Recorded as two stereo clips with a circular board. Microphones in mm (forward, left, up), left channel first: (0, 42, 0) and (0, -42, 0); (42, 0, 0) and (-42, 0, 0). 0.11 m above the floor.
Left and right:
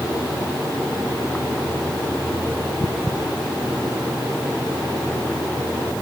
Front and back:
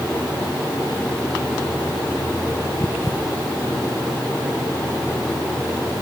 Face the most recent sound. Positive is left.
No sound to turn to.